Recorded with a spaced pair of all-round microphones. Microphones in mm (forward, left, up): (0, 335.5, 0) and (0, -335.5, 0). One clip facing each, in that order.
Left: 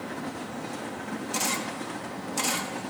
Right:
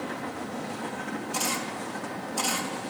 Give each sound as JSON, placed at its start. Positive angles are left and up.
{"t": 1.3, "sound": "a camera shutter", "side_deg": 50, "distance_m": 1.2}